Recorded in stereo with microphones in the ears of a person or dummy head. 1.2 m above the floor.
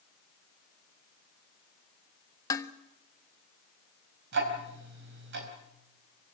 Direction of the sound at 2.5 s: 20° left (ahead or behind).